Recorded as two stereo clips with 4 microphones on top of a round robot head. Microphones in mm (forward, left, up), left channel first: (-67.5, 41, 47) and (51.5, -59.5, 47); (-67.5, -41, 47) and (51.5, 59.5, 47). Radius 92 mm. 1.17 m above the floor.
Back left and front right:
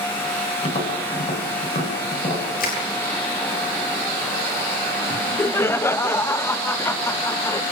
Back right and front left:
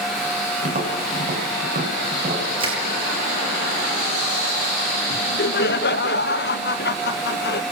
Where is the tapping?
85° left, 8 m.